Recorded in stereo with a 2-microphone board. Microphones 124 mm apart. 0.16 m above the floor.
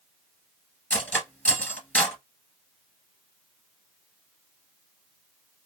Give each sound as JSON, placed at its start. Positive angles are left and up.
{"t": 0.9, "sound": "cutlery clinking", "side_deg": 10, "distance_m": 1.4}